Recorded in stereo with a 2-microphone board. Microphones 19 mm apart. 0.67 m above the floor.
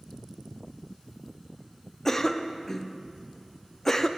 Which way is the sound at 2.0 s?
20° left (ahead or behind).